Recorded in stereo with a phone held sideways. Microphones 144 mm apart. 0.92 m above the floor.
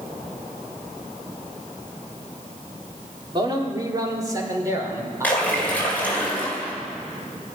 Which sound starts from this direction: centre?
A splash, at 5.2 s.